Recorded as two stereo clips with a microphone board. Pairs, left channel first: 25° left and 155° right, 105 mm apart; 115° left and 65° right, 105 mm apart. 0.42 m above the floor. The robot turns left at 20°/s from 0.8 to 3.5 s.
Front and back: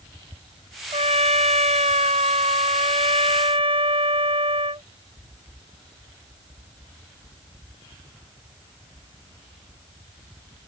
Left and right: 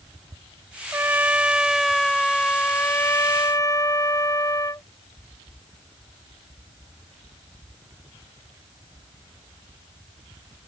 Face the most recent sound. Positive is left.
turn(degrees=170)